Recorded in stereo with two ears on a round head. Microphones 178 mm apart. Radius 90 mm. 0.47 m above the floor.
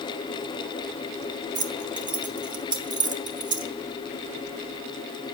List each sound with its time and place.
1.6 s keys jangling: 20° right (ahead or behind), 1.1 m